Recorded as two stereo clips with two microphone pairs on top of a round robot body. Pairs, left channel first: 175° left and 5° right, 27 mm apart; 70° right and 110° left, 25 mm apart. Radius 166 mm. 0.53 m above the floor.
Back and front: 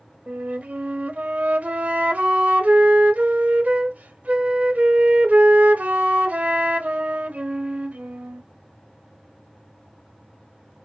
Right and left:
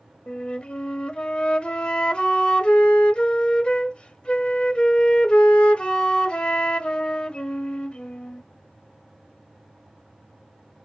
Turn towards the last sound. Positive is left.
turn(degrees=-25)